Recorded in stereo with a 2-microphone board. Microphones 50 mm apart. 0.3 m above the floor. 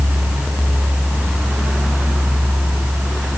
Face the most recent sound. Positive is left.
No sound to turn to.